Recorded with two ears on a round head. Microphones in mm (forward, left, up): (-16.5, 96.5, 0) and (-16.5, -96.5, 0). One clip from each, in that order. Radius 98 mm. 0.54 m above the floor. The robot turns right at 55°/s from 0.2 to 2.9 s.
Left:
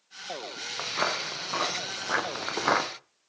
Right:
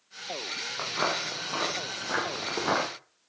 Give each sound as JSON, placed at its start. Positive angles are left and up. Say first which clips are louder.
{"t": 0.8, "sound": "footsteps", "louder": "left 1 dB", "side_deg": 15, "distance_m": 5.0}